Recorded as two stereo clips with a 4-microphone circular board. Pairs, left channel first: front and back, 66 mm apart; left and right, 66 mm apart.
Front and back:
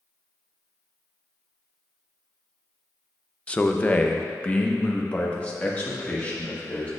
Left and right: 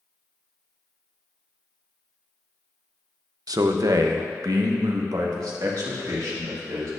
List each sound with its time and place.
3.5 s a man speaking: 70° right, 0.5 m